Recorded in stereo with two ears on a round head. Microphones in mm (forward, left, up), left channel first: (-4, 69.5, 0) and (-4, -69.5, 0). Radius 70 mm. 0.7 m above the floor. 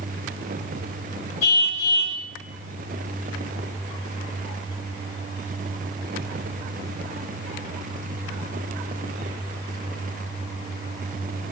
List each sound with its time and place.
1.4 s a car horn: 50° left (ahead or behind), 6.5 m